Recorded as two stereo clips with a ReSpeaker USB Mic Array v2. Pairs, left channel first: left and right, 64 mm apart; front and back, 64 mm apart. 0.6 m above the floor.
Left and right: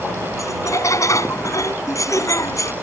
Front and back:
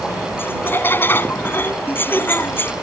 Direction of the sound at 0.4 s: 55° left.